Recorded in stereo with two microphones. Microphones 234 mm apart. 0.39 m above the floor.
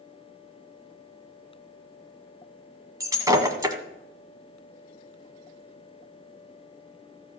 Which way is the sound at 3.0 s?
15° right (ahead or behind).